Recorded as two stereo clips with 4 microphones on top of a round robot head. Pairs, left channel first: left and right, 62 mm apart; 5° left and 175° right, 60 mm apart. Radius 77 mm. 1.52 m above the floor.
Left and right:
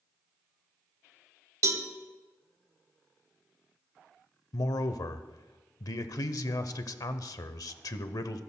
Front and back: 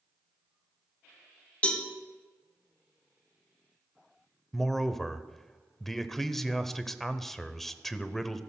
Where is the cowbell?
65° right, 1.0 m.